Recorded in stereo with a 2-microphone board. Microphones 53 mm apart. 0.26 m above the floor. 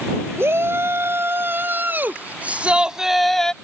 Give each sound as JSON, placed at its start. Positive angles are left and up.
{"t": 0.4, "sound": "a shout", "side_deg": -50}